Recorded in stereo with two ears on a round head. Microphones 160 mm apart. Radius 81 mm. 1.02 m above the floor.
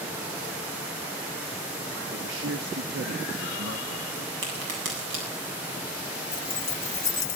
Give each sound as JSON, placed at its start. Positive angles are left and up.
{"t": 2.1, "sound": "a man speaking", "side_deg": -75, "distance_m": 1.2}
{"t": 4.4, "sound": "a crack", "side_deg": -75, "distance_m": 7.5}
{"t": 6.3, "sound": "keys jangling", "side_deg": 15, "distance_m": 1.5}